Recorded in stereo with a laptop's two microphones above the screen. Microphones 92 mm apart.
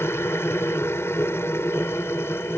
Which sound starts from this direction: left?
A machine running, at 0.0 s.